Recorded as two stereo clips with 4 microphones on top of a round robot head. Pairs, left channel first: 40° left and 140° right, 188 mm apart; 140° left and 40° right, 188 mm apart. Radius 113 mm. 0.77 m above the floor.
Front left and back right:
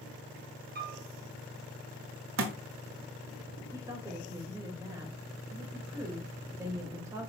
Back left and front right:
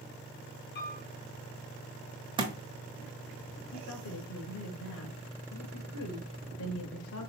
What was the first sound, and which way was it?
A piano, 175° left.